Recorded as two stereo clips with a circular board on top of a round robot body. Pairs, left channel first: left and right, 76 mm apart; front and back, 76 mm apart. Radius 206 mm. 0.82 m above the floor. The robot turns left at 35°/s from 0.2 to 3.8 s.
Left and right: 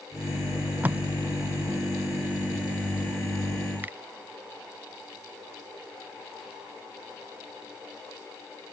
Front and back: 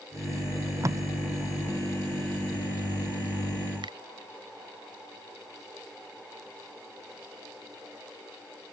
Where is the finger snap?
160° right.